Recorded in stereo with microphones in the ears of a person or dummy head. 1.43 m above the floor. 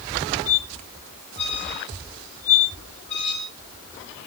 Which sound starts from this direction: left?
A squeak, at 0.5 s.